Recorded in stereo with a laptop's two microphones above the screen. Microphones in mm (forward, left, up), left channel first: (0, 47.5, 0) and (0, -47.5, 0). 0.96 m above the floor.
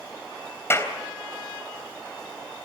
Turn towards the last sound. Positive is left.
turn(degrees=25)  # may be behind; listen again after turning